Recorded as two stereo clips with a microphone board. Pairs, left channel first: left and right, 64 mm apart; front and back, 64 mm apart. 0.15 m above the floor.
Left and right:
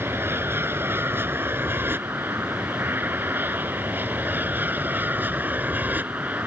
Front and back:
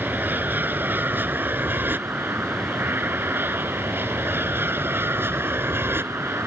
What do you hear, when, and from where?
0.0 s an aircraft: 130° right; by 6.5 s 145° right